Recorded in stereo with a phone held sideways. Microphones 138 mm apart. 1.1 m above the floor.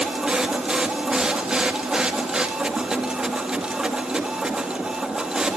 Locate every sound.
0.0 s a machine running: 5° right (ahead or behind), 2 m